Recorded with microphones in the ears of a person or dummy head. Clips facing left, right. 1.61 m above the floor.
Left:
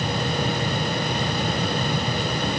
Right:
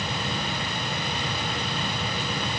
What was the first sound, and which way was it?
Only background noise.